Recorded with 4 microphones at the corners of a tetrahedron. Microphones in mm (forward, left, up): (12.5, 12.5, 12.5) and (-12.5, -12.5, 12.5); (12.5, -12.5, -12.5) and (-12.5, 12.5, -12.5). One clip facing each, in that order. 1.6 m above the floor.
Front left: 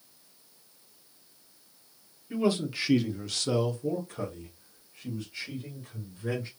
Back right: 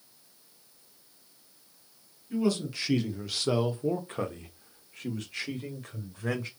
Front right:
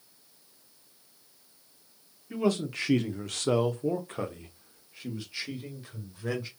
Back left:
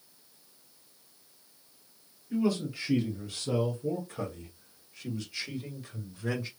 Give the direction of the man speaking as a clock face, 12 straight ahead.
1 o'clock.